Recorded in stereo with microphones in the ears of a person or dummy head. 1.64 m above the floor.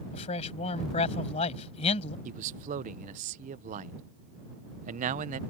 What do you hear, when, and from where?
0.1 s a man speaking: 35° left (ahead or behind)
2.2 s a man speaking: 45° right (ahead or behind)